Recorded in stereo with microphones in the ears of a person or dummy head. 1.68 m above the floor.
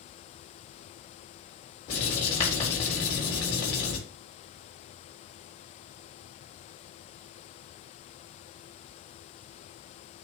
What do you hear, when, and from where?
1.9 s writing: 35° left (ahead or behind), 4 m